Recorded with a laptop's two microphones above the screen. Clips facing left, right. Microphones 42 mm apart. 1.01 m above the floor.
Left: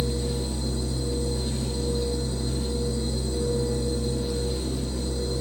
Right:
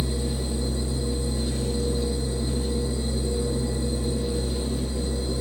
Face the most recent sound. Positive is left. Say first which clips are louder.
# even
turn(degrees=-15)  # may be behind; listen again after turning